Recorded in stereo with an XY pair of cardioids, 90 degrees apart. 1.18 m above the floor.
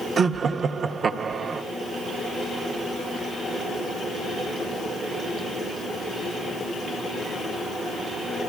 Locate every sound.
0.2 s laughter: 55° right, 0.7 m